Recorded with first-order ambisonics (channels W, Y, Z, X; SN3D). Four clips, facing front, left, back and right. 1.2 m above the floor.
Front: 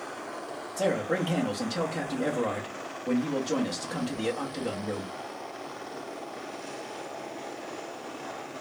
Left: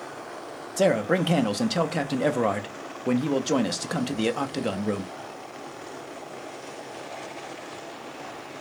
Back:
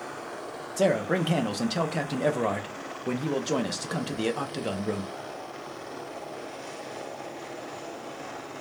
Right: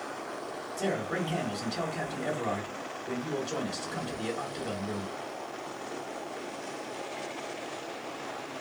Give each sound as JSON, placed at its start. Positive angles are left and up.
{"t": 0.8, "sound": "a man speaking", "azimuth_deg": 110, "distance_m": 0.5}